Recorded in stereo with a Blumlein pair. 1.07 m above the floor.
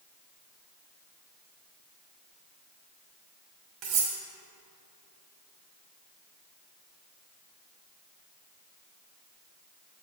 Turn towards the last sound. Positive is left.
turn(degrees=-40)